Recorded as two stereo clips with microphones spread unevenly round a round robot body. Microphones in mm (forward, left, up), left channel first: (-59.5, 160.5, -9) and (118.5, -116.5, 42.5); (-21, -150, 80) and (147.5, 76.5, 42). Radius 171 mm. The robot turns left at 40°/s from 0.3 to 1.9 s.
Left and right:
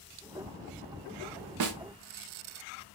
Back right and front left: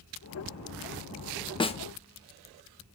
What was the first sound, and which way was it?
A snare drum, 50° right.